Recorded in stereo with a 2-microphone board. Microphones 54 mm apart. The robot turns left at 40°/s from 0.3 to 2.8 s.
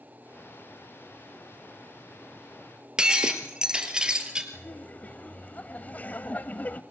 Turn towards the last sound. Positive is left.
turn(degrees=30)  # may be behind; listen again after turning